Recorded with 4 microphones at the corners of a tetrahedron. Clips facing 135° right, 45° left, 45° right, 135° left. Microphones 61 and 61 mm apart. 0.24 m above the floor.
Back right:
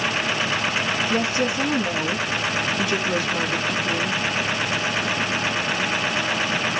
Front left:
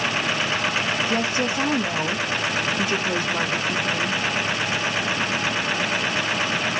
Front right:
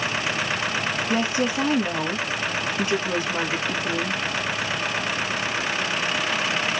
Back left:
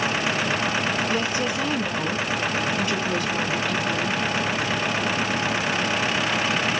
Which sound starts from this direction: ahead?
A woman speaking, at 1.1 s.